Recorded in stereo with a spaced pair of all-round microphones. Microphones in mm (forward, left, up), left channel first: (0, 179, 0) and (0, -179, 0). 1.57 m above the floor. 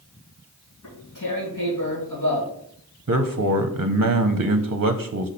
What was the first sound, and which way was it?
Tearing paper, 60° left (ahead or behind).